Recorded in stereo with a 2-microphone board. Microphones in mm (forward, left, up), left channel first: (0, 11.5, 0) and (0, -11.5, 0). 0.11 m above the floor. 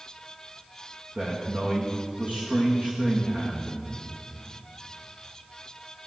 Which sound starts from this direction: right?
A man speaking, at 1.1 s.